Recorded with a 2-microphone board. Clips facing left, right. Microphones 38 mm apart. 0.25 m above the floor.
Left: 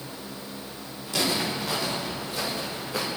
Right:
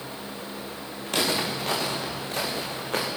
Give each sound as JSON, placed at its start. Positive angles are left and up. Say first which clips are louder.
{"t": 1.1, "sound": "footsteps", "louder": "right 1 dB", "side_deg": -55, "distance_m": 7.5}